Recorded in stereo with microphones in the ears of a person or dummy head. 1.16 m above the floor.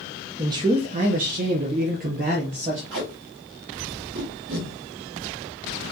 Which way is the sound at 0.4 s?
20° right (ahead or behind).